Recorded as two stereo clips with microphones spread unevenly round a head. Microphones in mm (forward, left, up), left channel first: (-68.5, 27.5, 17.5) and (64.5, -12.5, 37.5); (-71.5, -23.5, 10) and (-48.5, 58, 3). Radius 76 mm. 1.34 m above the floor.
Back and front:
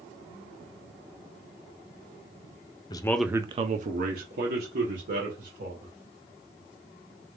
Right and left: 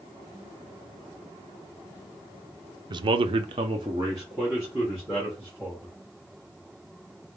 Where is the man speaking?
105° left, 0.6 m; by 6.0 s 10° right, 2.5 m.